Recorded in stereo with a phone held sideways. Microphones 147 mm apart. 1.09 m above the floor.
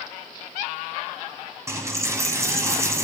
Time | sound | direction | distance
1.7 | a dropped coin | 20° right (ahead or behind) | 1.1 m